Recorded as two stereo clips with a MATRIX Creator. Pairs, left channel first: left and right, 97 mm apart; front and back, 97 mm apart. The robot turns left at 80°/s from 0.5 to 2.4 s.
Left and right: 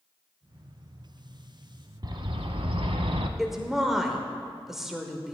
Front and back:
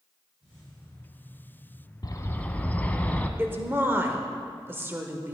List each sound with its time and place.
2.0 s a bird: 45° right, 0.7 m; by 3.3 s 75° right, 0.7 m
3.4 s a woman speaking: 170° right, 0.9 m